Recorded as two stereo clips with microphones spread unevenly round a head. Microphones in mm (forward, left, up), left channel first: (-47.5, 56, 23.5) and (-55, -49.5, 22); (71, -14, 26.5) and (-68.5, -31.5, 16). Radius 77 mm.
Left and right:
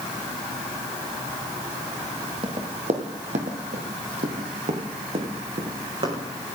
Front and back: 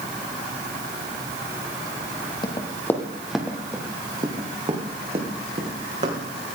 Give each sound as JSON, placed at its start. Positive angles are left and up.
{"t": 2.4, "sound": "running footsteps", "azimuth_deg": -45, "distance_m": 2.0}